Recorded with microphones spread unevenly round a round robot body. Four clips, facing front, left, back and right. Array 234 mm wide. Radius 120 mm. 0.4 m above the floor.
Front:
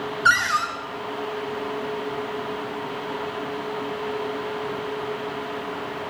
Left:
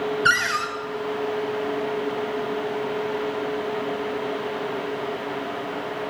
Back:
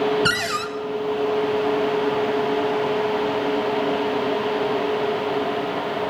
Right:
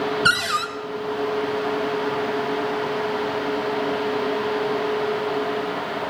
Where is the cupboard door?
165° right, 1.0 m.